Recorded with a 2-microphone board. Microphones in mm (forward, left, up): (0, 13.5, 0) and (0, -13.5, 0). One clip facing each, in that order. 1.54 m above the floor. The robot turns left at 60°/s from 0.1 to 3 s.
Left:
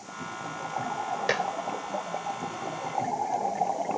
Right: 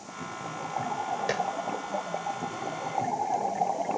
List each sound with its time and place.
1.3 s dishes clattering: 20° left (ahead or behind); by 1.5 s 30° left (ahead or behind)